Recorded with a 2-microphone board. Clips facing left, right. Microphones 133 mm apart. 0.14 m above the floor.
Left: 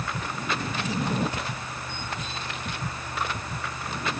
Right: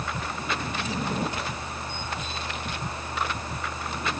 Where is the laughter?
No laughter in this recording.